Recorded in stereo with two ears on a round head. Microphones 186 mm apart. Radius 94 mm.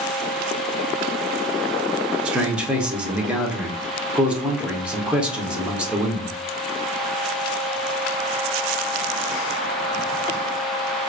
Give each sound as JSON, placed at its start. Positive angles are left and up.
{"t": 2.2, "sound": "a man speaking", "side_deg": -5, "distance_m": 0.8}